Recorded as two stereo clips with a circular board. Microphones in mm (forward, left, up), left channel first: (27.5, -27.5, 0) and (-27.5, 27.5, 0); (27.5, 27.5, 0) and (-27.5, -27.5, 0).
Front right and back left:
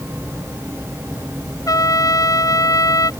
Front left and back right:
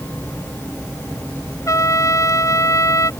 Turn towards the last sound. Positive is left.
turn(degrees=-5)